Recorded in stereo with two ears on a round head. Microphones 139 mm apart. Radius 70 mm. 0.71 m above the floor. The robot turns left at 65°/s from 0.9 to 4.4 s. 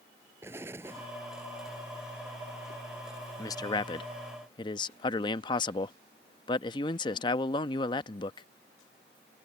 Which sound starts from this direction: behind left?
A man speaking, at 3.4 s.